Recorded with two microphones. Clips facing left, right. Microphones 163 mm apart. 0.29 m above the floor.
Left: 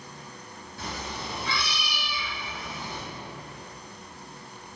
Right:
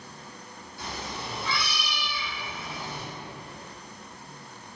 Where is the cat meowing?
55° left (ahead or behind), 1.1 m; by 3.0 s 40° right (ahead or behind), 1.0 m.